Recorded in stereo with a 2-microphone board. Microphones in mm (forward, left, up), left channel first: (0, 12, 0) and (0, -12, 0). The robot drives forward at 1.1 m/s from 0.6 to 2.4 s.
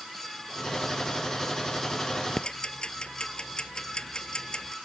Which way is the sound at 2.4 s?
35° left (ahead or behind).